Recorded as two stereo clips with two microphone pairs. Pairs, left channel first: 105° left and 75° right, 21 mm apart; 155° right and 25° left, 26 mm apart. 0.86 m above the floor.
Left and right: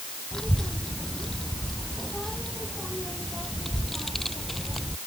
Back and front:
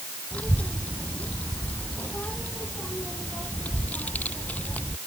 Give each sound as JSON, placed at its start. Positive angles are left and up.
{"t": 0.3, "sound": "a child speaking", "azimuth_deg": 175}